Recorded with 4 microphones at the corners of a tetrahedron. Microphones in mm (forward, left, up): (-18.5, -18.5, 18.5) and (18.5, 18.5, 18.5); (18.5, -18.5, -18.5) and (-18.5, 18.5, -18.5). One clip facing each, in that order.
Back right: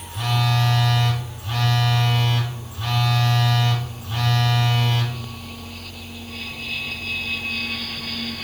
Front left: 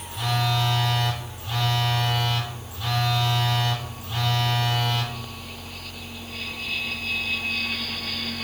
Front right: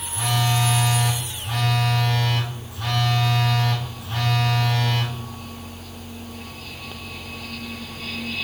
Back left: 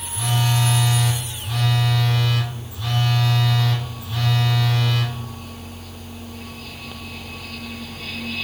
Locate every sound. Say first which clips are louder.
0.1 s a phone buzzing: back right 2 dB, even; 85° right, 3 m